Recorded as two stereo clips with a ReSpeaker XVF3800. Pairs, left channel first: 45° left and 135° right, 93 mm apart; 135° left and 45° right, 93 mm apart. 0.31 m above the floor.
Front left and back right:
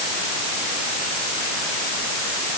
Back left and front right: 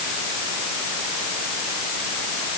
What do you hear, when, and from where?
Only background noise.